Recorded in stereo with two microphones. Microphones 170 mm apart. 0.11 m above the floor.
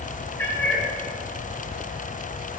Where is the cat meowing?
15° left (ahead or behind), 8 m.